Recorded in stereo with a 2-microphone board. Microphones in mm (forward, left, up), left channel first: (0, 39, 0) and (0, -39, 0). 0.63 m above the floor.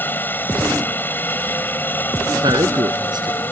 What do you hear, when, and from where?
0.0 s a helicopter: 25° left (ahead or behind)
2.4 s a man speaking: 70° right (ahead or behind)